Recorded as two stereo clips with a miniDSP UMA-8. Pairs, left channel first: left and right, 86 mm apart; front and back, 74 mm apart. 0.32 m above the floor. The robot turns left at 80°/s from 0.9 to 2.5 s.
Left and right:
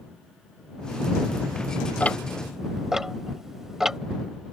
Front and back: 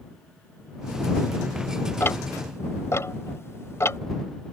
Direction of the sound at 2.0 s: 30° left.